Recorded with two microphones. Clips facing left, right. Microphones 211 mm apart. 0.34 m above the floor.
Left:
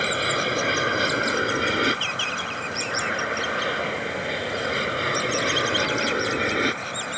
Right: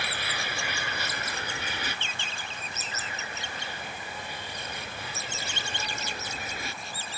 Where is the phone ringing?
No phone ringing in this recording.